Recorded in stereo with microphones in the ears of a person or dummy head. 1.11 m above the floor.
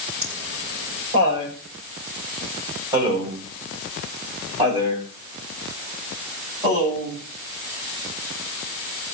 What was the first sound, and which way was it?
Laughter, 35° right (ahead or behind).